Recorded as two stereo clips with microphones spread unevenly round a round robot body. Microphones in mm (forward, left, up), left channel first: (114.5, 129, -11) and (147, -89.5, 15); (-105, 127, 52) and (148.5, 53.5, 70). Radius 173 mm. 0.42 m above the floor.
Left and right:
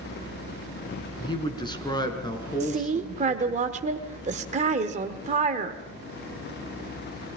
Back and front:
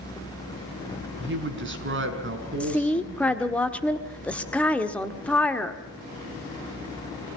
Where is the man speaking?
30° left, 5 m; by 3.6 s 25° left, 6.5 m.